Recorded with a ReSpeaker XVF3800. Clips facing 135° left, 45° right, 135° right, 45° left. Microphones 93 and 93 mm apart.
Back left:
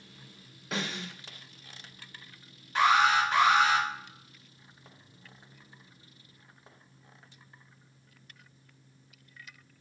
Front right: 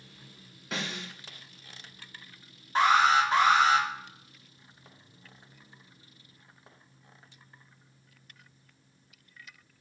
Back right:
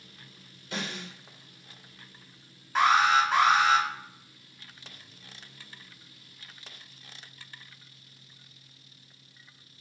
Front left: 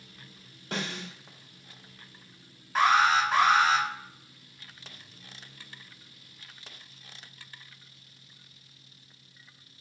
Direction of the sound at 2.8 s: 40° right.